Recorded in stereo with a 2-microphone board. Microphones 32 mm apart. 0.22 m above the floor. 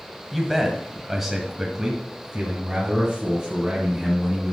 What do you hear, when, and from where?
0.3 s a man speaking: centre (ahead or behind), 1.6 m; by 4.5 s 10° right (ahead or behind), 3 m